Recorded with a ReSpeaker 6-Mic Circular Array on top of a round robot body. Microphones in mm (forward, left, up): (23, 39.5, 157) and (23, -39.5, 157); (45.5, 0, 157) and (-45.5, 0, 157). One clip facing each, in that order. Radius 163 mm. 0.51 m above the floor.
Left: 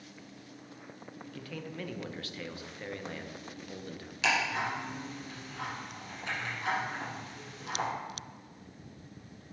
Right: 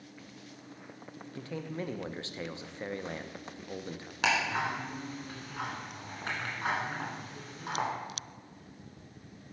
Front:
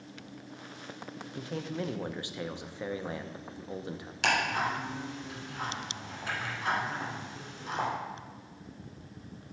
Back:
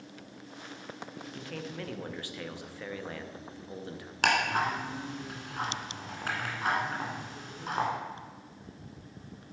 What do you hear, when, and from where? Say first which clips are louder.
1.2 s a man speaking: right 3 dB, front 4 dB; 50° right, 0.7 m
4.2 s ticking: right 1 dB, back 2 dB; 140° right, 1.6 m